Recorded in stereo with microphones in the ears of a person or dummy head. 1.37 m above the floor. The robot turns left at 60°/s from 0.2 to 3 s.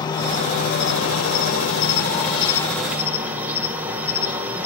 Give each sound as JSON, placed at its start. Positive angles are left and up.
{"t": 0.0, "sound": "an insect", "azimuth_deg": 160, "distance_m": 1.5}